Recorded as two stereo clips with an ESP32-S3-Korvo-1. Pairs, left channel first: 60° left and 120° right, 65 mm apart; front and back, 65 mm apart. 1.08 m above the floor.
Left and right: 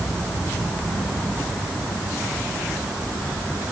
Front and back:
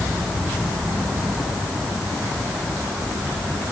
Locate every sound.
Only background noise.